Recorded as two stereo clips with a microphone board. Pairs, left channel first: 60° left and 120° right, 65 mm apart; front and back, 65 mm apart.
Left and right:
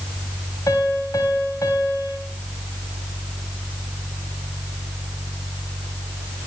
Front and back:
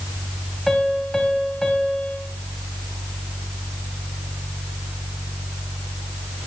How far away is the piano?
About 2.5 m.